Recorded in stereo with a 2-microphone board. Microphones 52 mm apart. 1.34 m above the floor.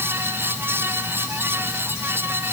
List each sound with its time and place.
Only background noise.